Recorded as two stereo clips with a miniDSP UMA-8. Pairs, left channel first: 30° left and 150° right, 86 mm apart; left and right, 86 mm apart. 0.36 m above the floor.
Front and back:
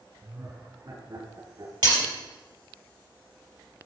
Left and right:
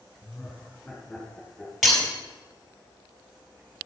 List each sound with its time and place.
0.2 s laughter: straight behind, 4 m; by 1.7 s 175° left, 5 m
1.8 s breaking glass: straight behind, 3.5 m